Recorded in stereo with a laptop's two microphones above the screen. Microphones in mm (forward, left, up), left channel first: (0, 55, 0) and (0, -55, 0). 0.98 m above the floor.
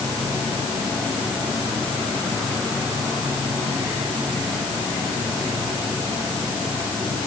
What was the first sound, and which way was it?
Only background noise.